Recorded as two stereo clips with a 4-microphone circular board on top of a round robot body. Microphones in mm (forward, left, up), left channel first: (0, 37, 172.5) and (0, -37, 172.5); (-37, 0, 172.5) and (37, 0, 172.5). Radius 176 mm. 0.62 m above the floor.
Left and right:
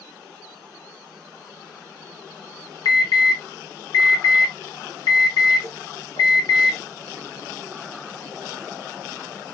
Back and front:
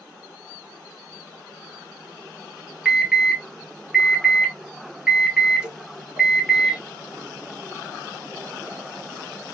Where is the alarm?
80° left, 2.5 m.